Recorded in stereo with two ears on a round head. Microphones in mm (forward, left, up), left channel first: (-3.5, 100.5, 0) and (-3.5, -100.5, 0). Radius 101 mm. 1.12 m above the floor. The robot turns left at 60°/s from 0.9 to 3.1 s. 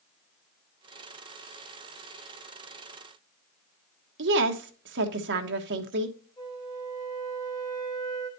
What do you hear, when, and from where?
4.2 s a woman speaking: 55° right (ahead or behind), 1.3 m
6.4 s a flute: 20° left (ahead or behind), 3.5 m